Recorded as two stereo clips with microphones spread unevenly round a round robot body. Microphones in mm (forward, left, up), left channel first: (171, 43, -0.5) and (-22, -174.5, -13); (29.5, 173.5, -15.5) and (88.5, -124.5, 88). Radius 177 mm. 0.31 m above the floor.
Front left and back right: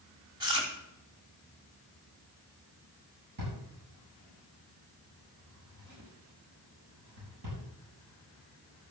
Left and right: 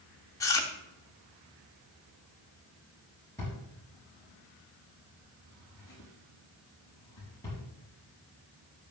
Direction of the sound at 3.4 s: 175° right.